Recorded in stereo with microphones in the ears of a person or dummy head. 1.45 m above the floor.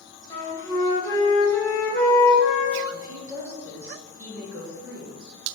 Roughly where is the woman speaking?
Centre.